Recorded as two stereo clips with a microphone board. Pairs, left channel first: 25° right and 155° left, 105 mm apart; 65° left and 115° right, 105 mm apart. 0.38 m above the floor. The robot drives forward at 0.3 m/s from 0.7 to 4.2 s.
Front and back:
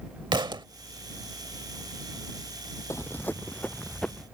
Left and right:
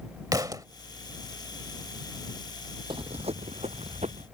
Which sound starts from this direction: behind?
A thud, at 0.3 s.